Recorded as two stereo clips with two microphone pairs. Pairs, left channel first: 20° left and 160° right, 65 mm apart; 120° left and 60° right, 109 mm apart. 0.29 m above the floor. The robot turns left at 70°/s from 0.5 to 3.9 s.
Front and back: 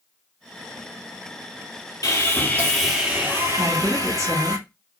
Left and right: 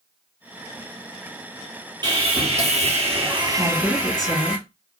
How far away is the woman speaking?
About 2.5 m.